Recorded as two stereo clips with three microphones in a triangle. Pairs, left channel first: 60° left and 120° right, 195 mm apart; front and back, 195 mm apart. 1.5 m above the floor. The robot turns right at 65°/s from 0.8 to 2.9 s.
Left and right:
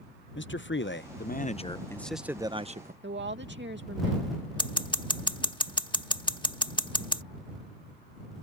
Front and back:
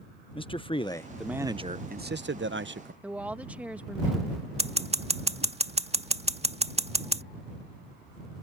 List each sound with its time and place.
0.3 s a man speaking: 65° left; by 2.9 s 160° right
3.0 s a woman speaking: 100° right
4.6 s scissors: 125° left